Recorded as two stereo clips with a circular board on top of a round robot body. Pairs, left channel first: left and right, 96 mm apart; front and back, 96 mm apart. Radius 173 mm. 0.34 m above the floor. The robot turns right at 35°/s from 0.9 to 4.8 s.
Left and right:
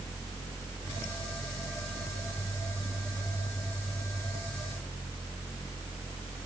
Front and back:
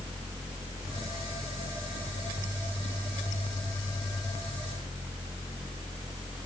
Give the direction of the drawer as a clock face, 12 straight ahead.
I don't hear a drawer.